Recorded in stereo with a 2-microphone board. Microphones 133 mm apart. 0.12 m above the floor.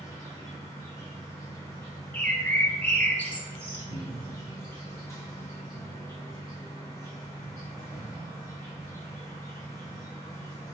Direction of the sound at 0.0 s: 20° left (ahead or behind).